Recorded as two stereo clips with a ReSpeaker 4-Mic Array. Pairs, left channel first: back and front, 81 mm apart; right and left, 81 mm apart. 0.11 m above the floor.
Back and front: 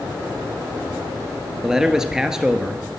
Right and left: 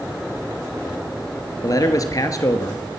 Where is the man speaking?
80° right, 1.5 m.